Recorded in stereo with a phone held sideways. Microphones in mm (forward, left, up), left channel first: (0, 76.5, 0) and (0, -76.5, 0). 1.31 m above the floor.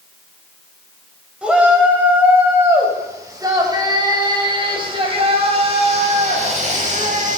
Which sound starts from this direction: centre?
A shout, at 1.4 s.